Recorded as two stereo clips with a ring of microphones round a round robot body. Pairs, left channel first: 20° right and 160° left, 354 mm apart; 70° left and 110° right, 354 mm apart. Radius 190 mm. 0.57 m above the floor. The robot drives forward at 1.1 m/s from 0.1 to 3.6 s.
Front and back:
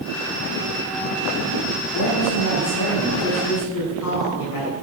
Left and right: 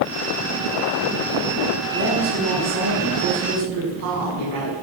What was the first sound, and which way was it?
A woman speaking, 65° right.